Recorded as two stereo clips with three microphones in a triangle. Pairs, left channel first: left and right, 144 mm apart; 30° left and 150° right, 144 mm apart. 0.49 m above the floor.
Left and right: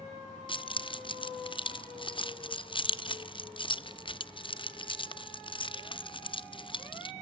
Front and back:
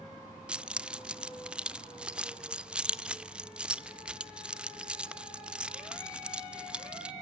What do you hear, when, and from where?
0.5 s keys jangling: 130° left, 0.5 m